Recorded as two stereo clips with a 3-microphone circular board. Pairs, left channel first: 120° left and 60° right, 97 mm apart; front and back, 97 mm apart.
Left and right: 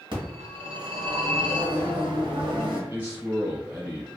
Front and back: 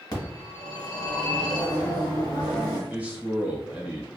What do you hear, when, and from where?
0.1 s a phone ringing: 40° right, 1.2 m
2.9 s a man speaking: 115° right, 1.1 m